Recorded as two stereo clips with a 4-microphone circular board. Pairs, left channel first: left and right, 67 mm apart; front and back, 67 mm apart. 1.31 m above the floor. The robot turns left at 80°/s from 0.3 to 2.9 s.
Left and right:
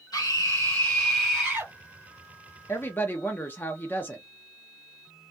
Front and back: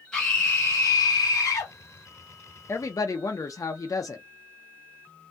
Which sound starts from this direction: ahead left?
A woman speaking, at 2.7 s.